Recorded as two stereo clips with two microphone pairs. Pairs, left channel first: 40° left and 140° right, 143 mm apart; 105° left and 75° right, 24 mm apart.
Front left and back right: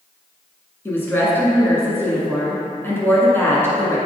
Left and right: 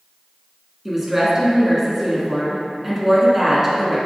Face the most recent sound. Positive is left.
turn(degrees=-10)